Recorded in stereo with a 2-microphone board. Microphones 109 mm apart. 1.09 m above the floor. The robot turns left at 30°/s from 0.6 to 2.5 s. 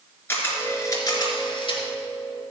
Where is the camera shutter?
160° left, 3.5 m; by 1.8 s 120° left, 3.5 m.